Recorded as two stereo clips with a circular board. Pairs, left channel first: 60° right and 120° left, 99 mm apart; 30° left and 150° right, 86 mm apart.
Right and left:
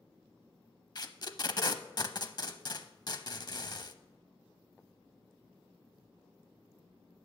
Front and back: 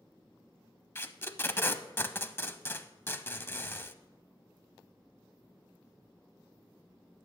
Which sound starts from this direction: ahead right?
Tape being pulled, at 0.9 s.